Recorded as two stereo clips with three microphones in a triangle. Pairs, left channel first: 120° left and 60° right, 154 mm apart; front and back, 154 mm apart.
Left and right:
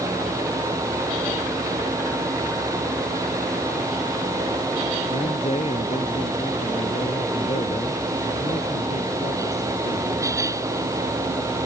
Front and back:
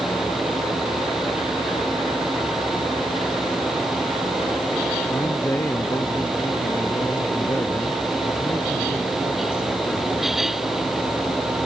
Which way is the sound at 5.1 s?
75° left.